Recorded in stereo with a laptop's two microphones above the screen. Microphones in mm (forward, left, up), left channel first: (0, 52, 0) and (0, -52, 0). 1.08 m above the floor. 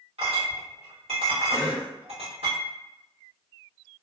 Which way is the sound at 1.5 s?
40° right (ahead or behind).